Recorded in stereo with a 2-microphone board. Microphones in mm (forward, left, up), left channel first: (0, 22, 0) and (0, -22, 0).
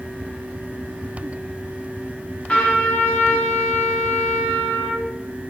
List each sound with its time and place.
2.5 s a trumpet: 25° left (ahead or behind), 0.8 m